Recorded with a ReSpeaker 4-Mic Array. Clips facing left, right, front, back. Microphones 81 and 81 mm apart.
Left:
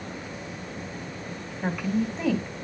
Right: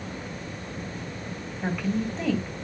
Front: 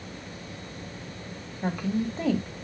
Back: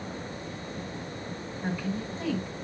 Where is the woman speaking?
5° left, 2.5 m.